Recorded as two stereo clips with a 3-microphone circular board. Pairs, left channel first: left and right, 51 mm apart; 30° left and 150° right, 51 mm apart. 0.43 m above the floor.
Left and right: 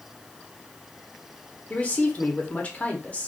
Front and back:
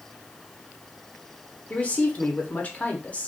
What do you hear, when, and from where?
1.7 s a man speaking: 60° left, 0.8 m